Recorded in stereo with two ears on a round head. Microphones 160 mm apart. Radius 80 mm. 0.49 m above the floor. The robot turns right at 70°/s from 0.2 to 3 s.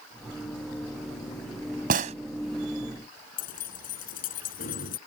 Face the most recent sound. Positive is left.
turn(degrees=50)  # may be behind; listen again after turning